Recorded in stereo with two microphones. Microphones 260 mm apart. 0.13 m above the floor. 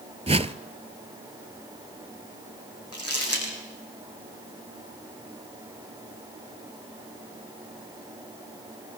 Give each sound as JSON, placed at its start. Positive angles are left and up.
{"t": 0.3, "sound": "a whoosh", "side_deg": -25, "distance_m": 0.6}
{"t": 2.9, "sound": "crumpling", "side_deg": 60, "distance_m": 7.5}